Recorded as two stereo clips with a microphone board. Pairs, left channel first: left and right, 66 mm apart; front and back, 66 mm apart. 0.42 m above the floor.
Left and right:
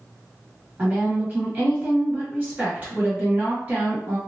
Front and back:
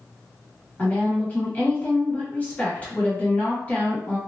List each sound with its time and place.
0.8 s a woman speaking: 50° right, 1.6 m